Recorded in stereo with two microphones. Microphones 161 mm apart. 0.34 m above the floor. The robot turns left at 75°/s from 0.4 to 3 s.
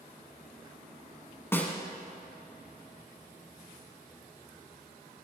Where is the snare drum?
15° left (ahead or behind), 1.4 m; by 1.8 s centre (ahead or behind), 1.4 m.